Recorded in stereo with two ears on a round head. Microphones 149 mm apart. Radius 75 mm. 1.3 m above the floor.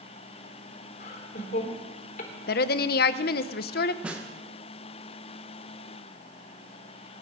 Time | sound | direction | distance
1.0 | laughter | 50° left (ahead or behind) | 3.5 m
2.5 | a woman speaking | 60° left (ahead or behind) | 0.7 m
4.0 | a snare drum | 5° right (ahead or behind) | 1.5 m